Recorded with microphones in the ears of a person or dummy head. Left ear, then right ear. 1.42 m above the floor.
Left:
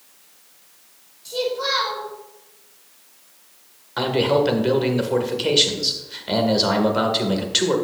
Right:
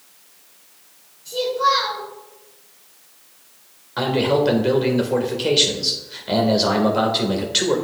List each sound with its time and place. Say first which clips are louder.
1.2 s a child speaking: right 4 dB; 25° left (ahead or behind), 2.5 m
4.0 s a man speaking: even; 5° left (ahead or behind), 1.5 m